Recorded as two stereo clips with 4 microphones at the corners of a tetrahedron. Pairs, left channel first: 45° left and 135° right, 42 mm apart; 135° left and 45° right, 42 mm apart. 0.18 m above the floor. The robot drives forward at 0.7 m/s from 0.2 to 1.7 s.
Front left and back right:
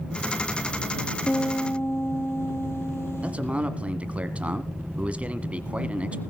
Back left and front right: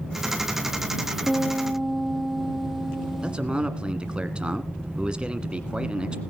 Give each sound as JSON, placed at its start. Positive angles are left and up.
{"t": 1.3, "sound": "a piano", "azimuth_deg": 35, "distance_m": 2.0}
{"t": 3.2, "sound": "a man speaking", "azimuth_deg": -100, "distance_m": 1.3}